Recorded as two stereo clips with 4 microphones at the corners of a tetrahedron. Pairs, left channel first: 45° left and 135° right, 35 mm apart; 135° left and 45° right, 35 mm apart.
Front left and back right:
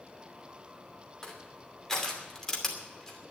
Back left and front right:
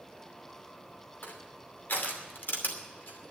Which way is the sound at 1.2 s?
120° left.